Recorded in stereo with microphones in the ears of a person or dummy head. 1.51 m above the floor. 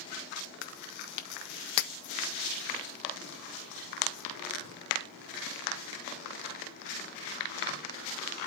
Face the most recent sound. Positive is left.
turn(degrees=75)  # may be behind; listen again after turning